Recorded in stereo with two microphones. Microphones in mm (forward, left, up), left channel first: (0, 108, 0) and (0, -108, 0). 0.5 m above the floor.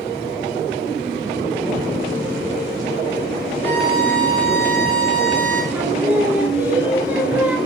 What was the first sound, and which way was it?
A violin, 10° left (ahead or behind).